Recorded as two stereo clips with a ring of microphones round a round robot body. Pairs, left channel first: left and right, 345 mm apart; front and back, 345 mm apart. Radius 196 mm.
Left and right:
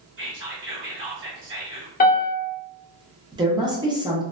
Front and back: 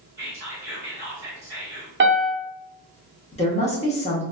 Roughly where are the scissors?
I don't hear scissors.